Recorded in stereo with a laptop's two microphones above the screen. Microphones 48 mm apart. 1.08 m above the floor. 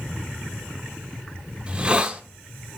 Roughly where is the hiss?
Right.